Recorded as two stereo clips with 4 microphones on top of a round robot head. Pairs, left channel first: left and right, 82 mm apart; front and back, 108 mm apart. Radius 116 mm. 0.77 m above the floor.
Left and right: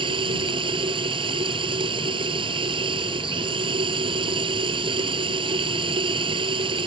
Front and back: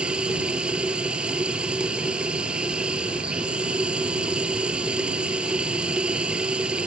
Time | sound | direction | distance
0.0 | running water | 95° right | ?